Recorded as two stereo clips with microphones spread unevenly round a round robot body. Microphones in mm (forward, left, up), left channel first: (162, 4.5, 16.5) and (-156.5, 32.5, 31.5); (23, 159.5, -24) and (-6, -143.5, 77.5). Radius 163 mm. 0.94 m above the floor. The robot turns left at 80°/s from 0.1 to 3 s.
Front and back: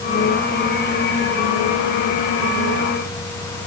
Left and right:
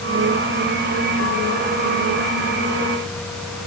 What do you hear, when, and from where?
Only background noise.